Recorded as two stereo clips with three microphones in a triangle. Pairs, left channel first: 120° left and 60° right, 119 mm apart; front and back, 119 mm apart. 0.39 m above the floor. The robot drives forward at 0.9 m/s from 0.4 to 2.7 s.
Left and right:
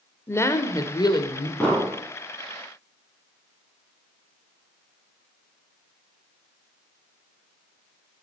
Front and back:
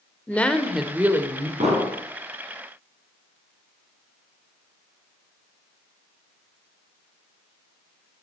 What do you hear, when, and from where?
0.3 s a woman speaking: 70° left, 1.4 m; by 1.5 s 135° left, 1.5 m
1.6 s an explosion: 160° right, 5 m